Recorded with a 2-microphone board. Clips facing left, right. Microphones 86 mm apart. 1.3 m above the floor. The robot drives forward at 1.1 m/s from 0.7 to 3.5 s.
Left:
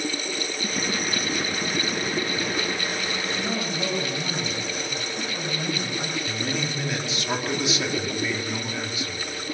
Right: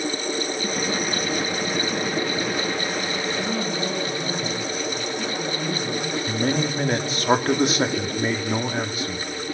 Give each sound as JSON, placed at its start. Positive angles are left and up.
{"t": 3.4, "sound": "a man speaking", "side_deg": 40, "distance_m": 7.0}
{"t": 6.3, "sound": "a man speaking", "side_deg": -45, "distance_m": 2.5}